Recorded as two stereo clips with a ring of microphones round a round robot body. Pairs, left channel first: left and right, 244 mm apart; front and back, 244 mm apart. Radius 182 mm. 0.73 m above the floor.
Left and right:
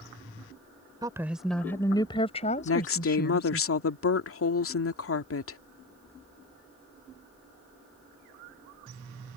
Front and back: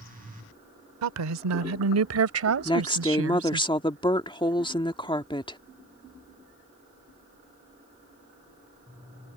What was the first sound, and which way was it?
A woman speaking, 170° right.